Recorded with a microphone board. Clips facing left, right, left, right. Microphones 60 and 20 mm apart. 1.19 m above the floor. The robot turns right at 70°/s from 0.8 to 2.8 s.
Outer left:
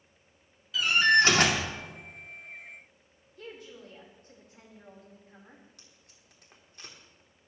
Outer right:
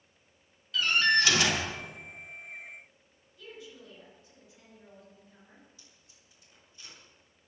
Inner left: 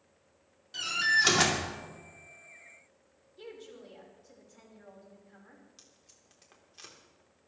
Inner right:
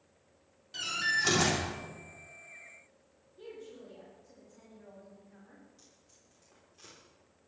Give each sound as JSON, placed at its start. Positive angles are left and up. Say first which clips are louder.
{"t": 0.7, "sound": "a door slam", "louder": "outer left 3 dB, inner left 4 dB", "azimuth_deg": 5, "distance_m": 2.5}
{"t": 3.4, "sound": "a woman speaking", "louder": "outer left 2 dB, even", "side_deg": 50, "distance_m": 4.5}
{"t": 5.8, "sound": "tape being pulled", "louder": "outer left 2 dB, inner left 2 dB", "side_deg": 65, "distance_m": 3.5}